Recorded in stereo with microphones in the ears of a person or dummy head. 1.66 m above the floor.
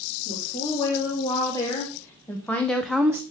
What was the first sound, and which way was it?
A woman speaking, 20° left (ahead or behind).